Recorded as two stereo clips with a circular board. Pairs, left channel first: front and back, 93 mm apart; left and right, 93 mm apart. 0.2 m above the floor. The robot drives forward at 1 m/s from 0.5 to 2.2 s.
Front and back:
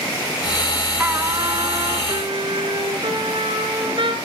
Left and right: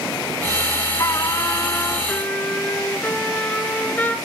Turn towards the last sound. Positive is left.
turn(degrees=160)